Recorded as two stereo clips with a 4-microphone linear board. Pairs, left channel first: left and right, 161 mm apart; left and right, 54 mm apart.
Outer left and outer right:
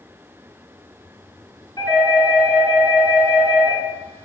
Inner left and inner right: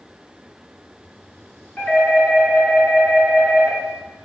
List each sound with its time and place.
1.8 s a doorbell: 25° left (ahead or behind), 1.8 m